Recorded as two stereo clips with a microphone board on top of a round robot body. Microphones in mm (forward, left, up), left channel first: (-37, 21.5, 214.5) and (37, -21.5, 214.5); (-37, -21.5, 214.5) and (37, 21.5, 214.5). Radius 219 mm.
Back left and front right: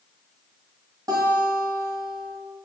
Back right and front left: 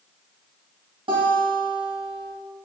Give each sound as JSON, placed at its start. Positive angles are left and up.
{"t": 1.1, "sound": "a guitar", "azimuth_deg": 15, "distance_m": 1.7}